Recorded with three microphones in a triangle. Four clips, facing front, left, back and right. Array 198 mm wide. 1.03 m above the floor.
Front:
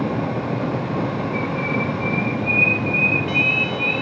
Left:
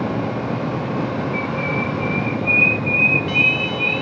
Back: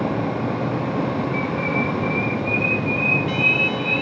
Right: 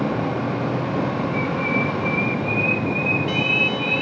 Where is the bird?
90° right, 7 m.